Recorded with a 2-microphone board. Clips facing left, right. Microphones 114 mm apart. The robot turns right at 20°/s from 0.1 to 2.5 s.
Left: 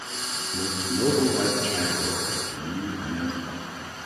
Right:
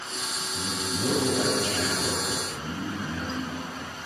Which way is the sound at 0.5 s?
100° left.